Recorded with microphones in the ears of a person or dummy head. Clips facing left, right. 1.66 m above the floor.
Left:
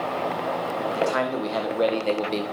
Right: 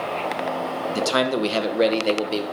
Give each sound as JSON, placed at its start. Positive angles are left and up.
{"t": 0.9, "sound": "a man speaking", "side_deg": -60, "distance_m": 1.3}